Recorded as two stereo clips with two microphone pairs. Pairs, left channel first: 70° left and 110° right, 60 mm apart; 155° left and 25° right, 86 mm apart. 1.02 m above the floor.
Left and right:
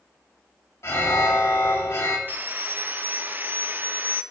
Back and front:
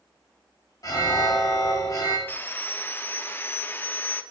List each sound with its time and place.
0.8 s an alarm: 115° left, 2.5 m
2.3 s sawing: 150° right, 0.6 m